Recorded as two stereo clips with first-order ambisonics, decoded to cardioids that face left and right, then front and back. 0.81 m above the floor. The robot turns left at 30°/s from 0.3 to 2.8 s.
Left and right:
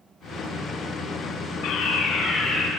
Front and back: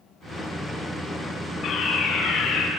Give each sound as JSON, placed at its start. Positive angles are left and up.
{"t": 1.6, "sound": "a fire alarm", "azimuth_deg": 65, "distance_m": 4.5}